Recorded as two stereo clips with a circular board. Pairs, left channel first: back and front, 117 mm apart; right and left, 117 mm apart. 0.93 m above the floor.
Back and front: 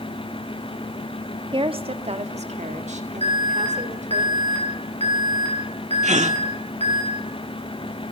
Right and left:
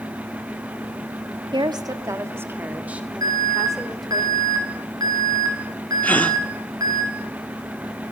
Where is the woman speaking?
45° left, 1.6 m; by 4.2 s straight ahead, 3.5 m.